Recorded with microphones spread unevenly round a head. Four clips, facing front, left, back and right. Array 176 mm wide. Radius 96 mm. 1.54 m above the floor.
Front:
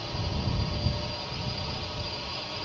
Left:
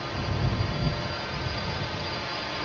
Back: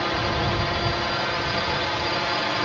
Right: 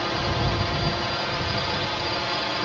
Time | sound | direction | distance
0.0 | a drone | 145° right | ?